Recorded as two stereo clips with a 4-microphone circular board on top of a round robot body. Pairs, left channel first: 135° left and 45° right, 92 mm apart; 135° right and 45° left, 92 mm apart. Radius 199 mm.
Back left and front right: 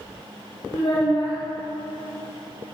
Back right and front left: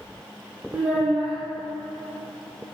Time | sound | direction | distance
0.7 | a child speaking | 115° left | 1.5 m